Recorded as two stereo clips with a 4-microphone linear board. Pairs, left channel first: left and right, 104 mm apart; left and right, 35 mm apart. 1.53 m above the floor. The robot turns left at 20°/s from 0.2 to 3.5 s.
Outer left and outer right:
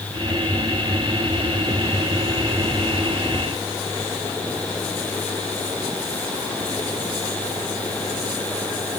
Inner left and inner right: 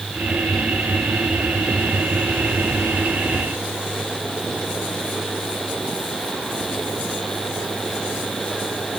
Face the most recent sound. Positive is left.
No sound to turn to.